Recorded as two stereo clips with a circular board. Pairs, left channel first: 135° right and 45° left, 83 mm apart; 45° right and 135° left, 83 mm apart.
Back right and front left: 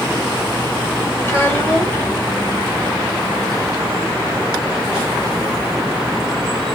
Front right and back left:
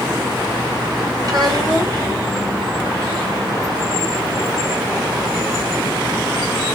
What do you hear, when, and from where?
1.2 s a child speaking: 165° left, 1.8 m